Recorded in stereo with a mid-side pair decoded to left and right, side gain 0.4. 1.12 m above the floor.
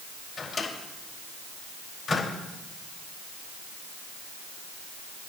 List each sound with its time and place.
0.4 s a microwave: 50° left, 4.5 m